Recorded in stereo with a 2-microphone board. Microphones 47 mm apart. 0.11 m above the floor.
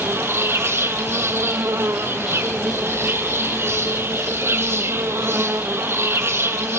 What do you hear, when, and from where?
0.0 s an insect: 55° right (ahead or behind), 1.0 m